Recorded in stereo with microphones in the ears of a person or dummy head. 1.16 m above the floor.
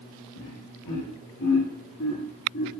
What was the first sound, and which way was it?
Laughter, 70° left (ahead or behind).